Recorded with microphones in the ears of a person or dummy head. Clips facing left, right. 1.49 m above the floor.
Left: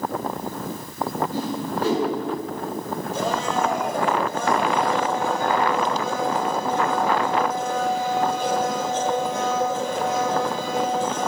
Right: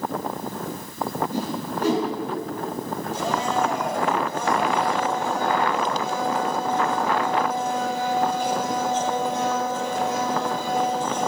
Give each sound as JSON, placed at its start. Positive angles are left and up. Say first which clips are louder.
{"t": 1.3, "sound": "a whoosh", "louder": "left 1 dB", "side_deg": -15, "distance_m": 5.5}
{"t": 3.1, "sound": "a blender", "louder": "even", "side_deg": 55, "distance_m": 4.0}